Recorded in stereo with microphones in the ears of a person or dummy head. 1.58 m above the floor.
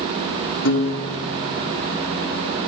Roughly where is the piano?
Left.